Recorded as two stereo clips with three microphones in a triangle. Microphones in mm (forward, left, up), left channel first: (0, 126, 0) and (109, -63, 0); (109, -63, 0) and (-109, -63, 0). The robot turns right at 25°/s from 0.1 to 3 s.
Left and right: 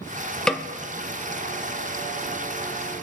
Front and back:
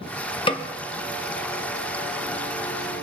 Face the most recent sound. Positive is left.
turn(degrees=100)